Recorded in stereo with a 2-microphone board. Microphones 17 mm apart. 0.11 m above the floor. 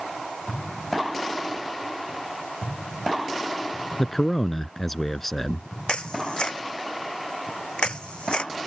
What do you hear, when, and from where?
4.0 s a man speaking: 15° left (ahead or behind)
5.9 s a camera shutter: 65° left (ahead or behind)